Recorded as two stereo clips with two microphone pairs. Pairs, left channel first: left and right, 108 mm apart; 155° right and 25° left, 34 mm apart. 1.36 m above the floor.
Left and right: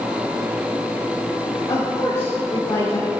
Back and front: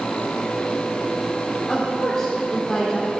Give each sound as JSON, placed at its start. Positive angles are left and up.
{"t": 1.7, "sound": "a woman speaking", "azimuth_deg": 135, "distance_m": 1.9}